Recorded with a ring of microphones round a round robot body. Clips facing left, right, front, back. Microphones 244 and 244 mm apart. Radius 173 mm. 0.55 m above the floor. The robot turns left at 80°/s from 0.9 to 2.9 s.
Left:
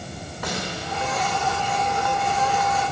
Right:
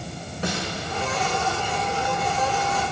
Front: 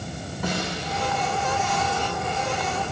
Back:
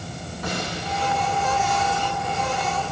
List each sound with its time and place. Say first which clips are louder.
0.4 s a snare drum: right 2 dB, front 1 dB; 30° right, 4.5 m